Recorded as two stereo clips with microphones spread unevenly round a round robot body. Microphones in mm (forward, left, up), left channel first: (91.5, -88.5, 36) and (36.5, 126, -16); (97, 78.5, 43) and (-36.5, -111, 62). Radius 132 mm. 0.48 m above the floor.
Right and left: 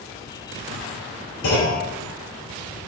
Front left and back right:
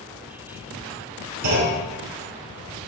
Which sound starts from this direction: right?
A clunk, at 1.4 s.